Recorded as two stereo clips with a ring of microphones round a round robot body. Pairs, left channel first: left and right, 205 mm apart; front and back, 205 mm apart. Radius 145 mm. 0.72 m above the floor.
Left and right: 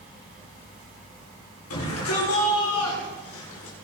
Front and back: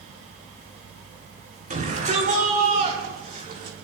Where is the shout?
130° left, 8 m.